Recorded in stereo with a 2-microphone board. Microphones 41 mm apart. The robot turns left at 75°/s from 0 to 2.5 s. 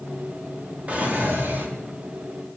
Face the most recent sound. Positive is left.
turn(degrees=-165)